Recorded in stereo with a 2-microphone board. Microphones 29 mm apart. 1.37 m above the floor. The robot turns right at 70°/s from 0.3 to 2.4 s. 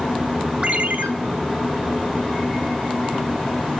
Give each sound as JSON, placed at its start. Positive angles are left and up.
{"t": 0.6, "sound": "a ringtone", "azimuth_deg": -135, "distance_m": 1.8}